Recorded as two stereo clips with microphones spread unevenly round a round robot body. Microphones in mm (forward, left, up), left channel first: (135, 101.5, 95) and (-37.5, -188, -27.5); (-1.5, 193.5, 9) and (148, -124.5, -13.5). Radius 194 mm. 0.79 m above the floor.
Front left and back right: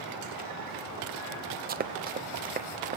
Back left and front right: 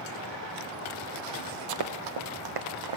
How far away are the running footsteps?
About 1.1 m.